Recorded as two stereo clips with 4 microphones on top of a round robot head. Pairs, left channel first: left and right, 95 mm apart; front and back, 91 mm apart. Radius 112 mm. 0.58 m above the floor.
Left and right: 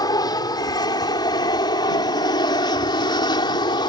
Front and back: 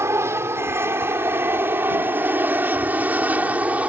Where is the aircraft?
125° left; by 3.9 s 105° left.